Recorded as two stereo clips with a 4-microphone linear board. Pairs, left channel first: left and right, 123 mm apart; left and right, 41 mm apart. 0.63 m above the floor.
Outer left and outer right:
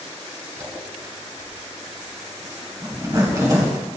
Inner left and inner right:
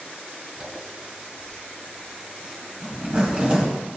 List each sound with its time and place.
0.6 s a zipper: 30° right (ahead or behind), 2.5 m